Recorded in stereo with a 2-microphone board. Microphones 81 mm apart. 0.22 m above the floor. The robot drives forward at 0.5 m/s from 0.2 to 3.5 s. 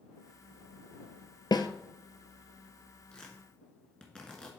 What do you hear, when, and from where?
1.5 s a snare drum: 70° left (ahead or behind), 0.6 m; by 1.7 s 80° left, 0.6 m
3.1 s tearing paper: 15° left (ahead or behind), 1.8 m; by 4.5 s 10° left (ahead or behind), 2.0 m